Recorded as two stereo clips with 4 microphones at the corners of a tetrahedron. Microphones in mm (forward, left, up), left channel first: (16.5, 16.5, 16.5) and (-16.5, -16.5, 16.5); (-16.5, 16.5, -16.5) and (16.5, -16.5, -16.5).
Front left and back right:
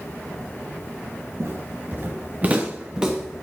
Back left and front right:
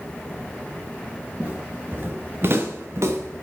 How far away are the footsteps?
About 2.5 m.